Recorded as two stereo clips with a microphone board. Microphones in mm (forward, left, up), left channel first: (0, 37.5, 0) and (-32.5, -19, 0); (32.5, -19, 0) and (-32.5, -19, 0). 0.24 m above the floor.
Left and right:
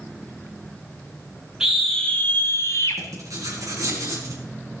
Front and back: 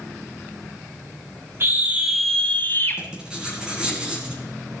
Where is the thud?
No thud in this recording.